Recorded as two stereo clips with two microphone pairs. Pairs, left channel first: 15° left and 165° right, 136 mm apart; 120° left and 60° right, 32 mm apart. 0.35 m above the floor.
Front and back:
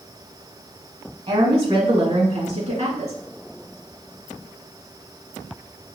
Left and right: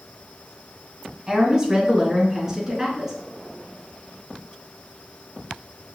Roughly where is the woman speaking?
Behind right.